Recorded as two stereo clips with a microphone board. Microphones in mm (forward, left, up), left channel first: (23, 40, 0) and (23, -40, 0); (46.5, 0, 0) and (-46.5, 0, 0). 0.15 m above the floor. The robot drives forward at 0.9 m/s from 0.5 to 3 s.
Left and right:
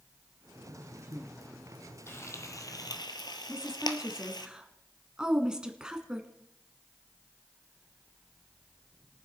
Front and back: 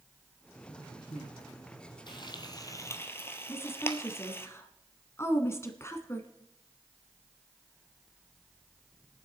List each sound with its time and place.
0.7 s a man speaking: 35° right, 5 m; by 1.3 s 40° right, 4.5 m
2.1 s frying: 30° left, 1.5 m; by 4.5 s 65° left, 0.9 m
3.5 s a woman speaking: 20° right, 1.2 m